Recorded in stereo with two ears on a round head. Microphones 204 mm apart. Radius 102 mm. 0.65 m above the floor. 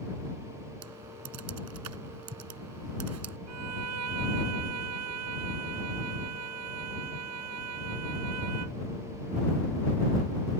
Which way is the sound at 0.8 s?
80° right.